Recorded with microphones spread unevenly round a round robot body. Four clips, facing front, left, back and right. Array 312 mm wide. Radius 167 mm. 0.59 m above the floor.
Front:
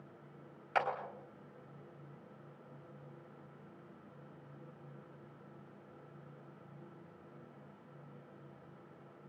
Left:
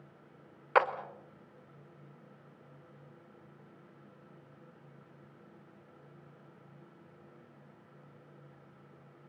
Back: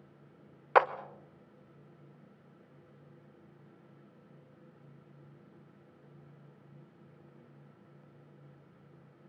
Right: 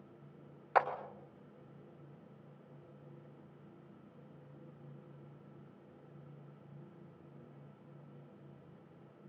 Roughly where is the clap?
Behind.